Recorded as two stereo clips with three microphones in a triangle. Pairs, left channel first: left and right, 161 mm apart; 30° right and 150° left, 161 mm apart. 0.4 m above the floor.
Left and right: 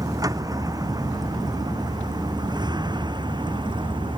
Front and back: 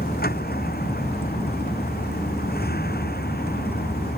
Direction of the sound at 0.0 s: 20° right.